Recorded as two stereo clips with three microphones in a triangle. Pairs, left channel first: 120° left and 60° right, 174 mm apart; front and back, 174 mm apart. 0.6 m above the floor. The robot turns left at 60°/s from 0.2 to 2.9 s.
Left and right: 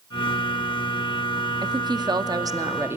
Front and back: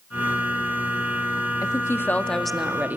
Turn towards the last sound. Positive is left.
turn(degrees=-115)